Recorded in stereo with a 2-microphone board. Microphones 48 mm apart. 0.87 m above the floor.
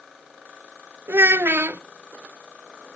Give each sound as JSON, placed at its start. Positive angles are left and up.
{"t": 1.1, "sound": "a child speaking", "side_deg": -55, "distance_m": 0.8}